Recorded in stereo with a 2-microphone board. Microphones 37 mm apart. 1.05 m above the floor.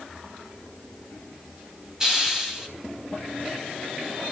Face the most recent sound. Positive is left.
turn(degrees=-15)  # may be behind; listen again after turning